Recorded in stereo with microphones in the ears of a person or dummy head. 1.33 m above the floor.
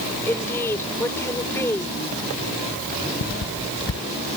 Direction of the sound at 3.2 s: 60° left (ahead or behind).